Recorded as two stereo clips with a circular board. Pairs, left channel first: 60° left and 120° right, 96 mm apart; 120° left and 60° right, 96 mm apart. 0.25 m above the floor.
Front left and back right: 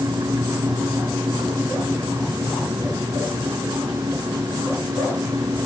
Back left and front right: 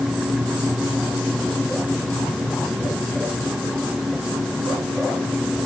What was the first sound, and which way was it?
Only background noise.